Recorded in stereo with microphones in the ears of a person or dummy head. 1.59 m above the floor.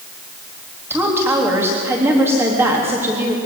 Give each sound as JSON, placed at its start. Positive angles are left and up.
{"t": 0.9, "sound": "a woman speaking", "side_deg": -10, "distance_m": 3.5}